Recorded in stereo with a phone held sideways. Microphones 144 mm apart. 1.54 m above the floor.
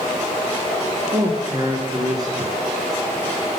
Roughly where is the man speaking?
Right.